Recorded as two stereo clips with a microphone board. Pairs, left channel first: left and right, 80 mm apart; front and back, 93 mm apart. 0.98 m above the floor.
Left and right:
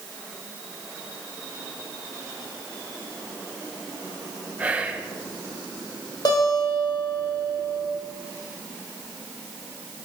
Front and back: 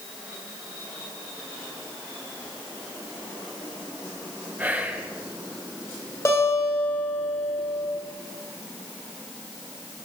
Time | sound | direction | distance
4.6 | whispering | 135° right | 0.7 m
6.2 | a guitar | 60° left | 2 m